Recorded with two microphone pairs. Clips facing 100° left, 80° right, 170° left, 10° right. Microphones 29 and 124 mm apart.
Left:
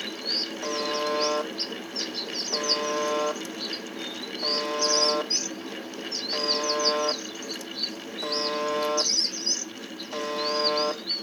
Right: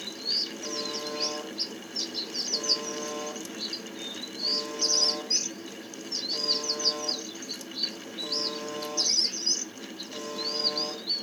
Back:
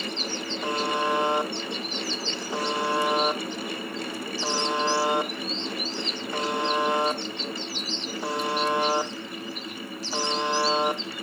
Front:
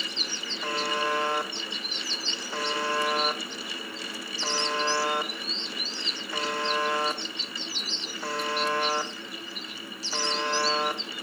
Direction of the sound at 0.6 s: 110° left.